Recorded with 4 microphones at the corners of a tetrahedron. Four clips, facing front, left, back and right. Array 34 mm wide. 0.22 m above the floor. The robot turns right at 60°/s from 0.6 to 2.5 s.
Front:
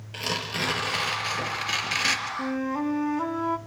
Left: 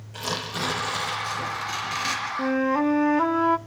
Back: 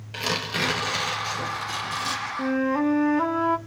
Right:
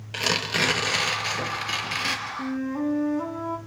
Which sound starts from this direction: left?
A flute, at 2.4 s.